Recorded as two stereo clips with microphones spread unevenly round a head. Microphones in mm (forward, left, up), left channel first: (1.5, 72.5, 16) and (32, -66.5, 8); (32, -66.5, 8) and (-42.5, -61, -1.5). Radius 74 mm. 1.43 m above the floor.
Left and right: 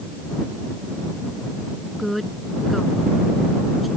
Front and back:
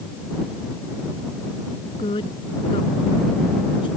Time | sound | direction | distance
2.0 | a woman speaking | 10° left | ?